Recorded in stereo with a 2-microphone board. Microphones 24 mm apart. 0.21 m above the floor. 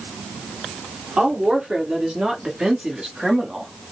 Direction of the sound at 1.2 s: 55° right (ahead or behind).